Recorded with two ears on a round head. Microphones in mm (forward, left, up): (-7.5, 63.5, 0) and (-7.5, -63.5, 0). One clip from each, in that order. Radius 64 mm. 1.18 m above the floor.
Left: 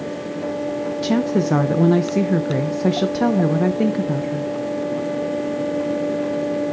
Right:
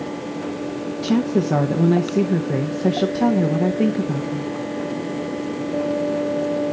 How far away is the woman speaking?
About 0.6 m.